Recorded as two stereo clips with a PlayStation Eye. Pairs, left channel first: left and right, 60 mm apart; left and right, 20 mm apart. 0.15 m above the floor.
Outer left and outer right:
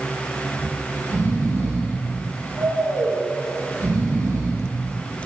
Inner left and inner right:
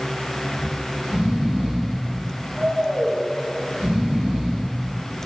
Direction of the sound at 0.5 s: 65° right (ahead or behind).